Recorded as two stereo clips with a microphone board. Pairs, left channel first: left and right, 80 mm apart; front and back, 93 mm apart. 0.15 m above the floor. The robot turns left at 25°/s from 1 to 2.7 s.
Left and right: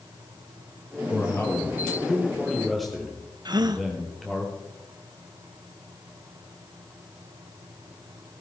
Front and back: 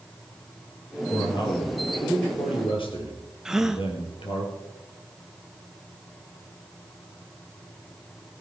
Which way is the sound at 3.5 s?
95° right.